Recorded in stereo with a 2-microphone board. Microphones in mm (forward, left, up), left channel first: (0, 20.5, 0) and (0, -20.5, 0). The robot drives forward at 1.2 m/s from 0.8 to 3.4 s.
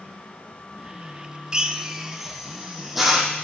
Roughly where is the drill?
Right.